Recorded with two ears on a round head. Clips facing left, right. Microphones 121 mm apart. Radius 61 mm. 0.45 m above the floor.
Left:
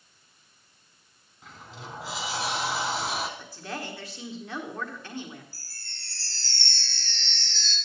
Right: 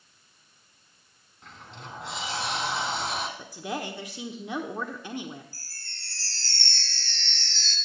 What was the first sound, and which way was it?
A sliding door, centre (ahead or behind).